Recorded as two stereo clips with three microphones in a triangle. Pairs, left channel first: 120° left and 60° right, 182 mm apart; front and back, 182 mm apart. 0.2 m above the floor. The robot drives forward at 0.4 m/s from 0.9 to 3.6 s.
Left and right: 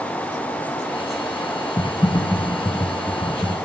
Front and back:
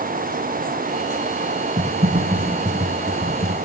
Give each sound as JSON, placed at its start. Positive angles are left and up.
{"t": 1.8, "sound": "typing on a keyboard", "azimuth_deg": 170, "distance_m": 1.4}